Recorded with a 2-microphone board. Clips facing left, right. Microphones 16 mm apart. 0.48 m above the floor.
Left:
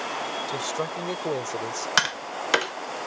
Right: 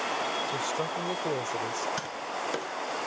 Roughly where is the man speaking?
Centre.